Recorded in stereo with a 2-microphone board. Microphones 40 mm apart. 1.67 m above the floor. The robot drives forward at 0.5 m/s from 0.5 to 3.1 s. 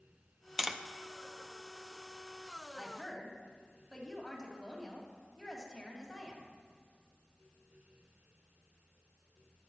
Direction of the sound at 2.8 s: Centre (ahead or behind).